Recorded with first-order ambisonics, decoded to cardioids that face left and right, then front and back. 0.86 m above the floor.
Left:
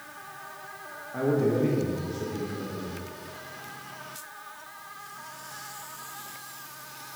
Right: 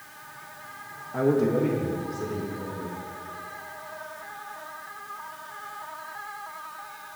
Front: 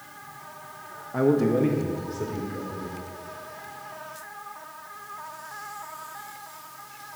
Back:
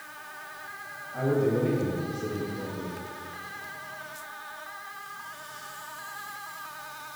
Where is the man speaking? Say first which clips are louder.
Right 2 dB, front 4 dB; 15° right, 0.8 m; by 2.9 s 10° left, 3 m.